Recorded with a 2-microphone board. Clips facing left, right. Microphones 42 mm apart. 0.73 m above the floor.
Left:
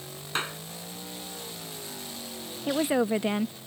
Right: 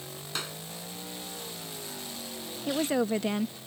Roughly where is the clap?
Left.